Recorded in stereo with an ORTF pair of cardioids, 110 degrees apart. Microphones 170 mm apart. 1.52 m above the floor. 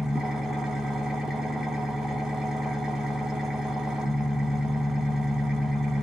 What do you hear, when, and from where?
0.0 s an engine running: 5° right, 0.8 m